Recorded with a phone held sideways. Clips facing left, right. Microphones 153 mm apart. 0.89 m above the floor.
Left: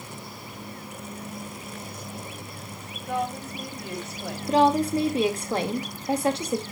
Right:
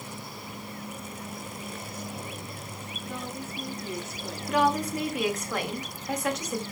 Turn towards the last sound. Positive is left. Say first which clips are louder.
# left 5 dB
turn(degrees=30)  # may be behind; listen again after turning